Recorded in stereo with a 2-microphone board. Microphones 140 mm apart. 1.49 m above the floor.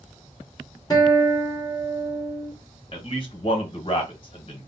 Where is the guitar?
25° left (ahead or behind), 1.2 m.